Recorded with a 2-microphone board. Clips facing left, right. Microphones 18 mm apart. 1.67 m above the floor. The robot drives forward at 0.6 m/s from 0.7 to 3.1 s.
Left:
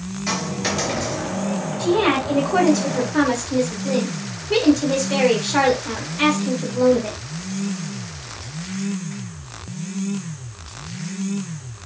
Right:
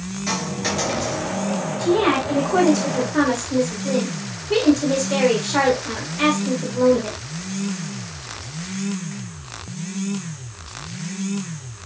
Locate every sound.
0.3 s a dropped coin: 5° left (ahead or behind), 4 m
1.8 s a woman speaking: 5° left (ahead or behind), 3 m